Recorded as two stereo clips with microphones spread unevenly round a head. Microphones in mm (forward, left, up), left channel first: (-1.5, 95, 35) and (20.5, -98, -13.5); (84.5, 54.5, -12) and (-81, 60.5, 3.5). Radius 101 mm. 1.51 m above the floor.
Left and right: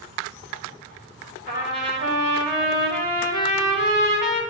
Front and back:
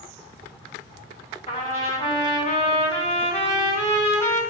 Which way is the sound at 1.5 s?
50° left.